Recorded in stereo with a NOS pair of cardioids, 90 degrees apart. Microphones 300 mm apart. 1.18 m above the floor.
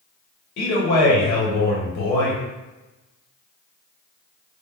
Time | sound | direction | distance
0.6 | a man speaking | 70° left | 1.9 m